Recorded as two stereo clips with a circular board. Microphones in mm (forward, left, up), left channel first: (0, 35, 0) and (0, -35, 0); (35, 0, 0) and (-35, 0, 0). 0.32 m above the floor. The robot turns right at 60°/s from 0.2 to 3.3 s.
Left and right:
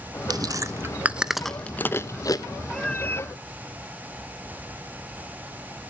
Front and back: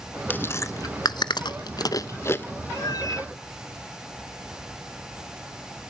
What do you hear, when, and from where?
0.3 s chewing: 65° right, 0.8 m; by 2.5 s 60° left, 0.8 m
2.7 s a cat meowing: 5° left, 0.6 m; by 3.3 s 40° left, 0.6 m